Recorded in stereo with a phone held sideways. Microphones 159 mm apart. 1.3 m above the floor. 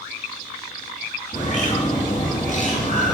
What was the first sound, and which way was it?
A bird, 45° left (ahead or behind).